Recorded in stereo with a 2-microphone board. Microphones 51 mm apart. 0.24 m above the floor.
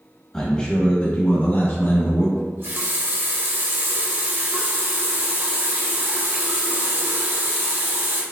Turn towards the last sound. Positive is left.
turn(degrees=-55)  # may be behind; listen again after turning